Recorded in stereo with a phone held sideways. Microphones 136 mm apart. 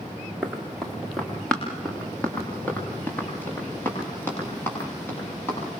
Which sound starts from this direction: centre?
Running footsteps, at 0.4 s.